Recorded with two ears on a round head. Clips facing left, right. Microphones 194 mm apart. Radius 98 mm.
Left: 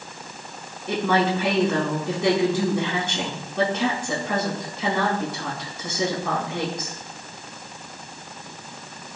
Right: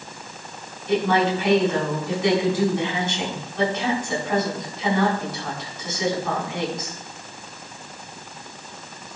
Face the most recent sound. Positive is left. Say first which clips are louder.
# right 2 dB
turn(degrees=80)